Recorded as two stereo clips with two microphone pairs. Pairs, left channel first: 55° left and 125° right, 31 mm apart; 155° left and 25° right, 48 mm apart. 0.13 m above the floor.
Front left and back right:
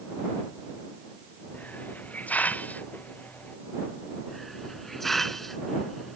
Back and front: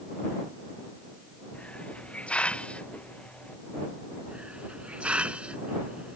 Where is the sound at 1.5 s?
90° left.